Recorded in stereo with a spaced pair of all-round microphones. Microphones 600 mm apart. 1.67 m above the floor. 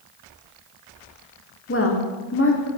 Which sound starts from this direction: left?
A woman speaking, at 1.7 s.